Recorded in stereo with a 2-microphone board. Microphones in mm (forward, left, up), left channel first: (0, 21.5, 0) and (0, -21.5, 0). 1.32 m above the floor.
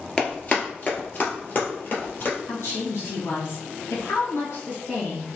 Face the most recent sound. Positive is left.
turn(degrees=75)  # may be behind; listen again after turning